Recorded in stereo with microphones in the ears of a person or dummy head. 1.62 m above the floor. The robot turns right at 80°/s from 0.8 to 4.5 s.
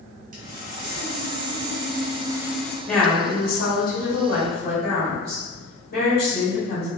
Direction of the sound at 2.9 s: 5° left.